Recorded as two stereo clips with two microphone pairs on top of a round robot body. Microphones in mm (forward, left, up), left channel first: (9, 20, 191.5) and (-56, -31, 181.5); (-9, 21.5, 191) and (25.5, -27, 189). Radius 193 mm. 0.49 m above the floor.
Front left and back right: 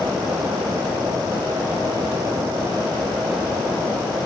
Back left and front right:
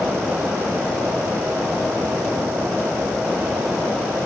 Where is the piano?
No piano in this recording.